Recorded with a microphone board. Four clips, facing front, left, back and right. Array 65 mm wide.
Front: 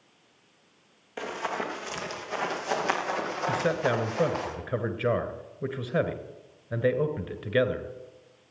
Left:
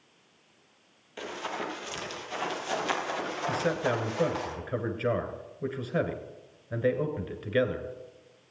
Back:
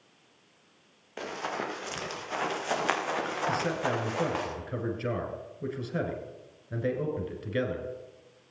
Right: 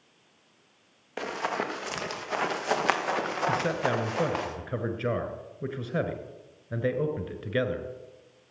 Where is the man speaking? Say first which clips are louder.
Left 1 dB, front 5 dB; 5° right, 1.7 m.